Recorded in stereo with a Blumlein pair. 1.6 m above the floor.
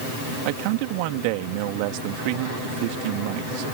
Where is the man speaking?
45° right.